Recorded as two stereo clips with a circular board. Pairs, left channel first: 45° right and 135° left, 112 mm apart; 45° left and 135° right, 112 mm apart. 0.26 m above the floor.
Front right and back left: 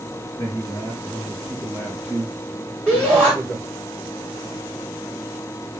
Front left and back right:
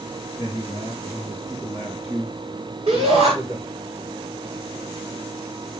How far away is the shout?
About 4 m.